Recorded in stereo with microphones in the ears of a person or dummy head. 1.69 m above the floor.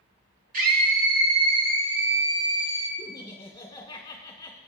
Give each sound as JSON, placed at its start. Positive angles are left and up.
{"t": 0.5, "sound": "a scream", "side_deg": -50, "distance_m": 2.5}
{"t": 3.0, "sound": "laughter", "side_deg": 20, "distance_m": 1.8}